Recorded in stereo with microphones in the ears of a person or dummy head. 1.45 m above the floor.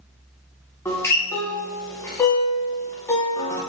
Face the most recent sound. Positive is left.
turn(degrees=15)  # may be behind; listen again after turning